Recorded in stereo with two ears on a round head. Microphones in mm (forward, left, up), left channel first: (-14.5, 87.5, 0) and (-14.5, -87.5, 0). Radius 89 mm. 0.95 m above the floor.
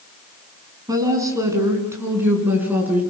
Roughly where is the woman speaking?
Centre.